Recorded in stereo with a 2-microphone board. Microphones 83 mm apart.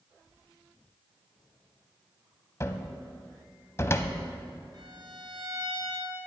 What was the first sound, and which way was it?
A cupboard door, 35° left (ahead or behind).